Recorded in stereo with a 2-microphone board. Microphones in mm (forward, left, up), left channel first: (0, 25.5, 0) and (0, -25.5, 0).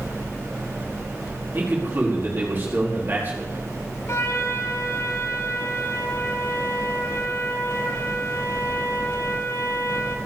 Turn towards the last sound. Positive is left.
turn(degrees=65)  # may be behind; listen again after turning